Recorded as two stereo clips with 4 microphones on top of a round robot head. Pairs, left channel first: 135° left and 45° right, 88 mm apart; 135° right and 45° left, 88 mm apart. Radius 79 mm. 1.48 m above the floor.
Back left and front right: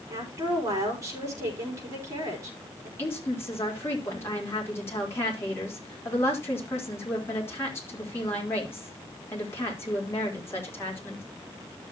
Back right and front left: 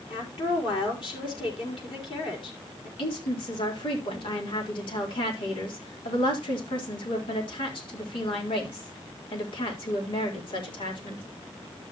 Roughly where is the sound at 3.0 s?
Behind.